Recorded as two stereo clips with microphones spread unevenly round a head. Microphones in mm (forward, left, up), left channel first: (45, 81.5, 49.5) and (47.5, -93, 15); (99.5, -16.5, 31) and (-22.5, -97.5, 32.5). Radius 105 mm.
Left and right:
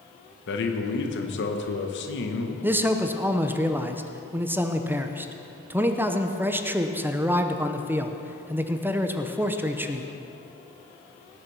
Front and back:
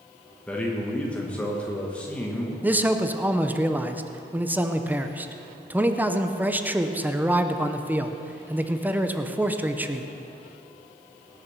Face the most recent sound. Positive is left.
turn(degrees=-85)